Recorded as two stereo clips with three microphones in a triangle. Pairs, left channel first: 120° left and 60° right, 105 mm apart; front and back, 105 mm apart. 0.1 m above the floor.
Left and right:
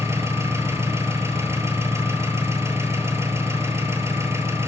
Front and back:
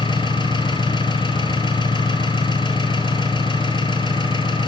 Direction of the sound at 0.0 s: 5° right.